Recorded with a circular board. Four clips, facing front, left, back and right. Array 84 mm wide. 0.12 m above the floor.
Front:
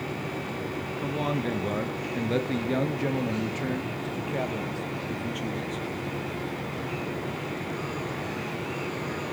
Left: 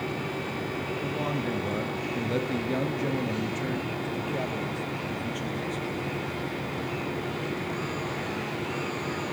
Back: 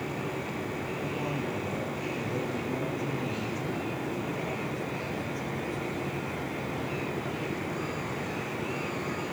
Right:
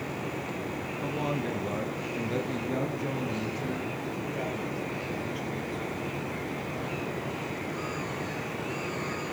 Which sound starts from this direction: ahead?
A man speaking, at 1.0 s.